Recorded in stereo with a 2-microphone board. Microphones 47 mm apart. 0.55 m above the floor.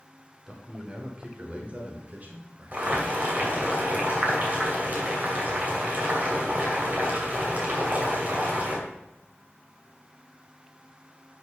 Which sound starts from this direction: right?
Boiling, at 2.7 s.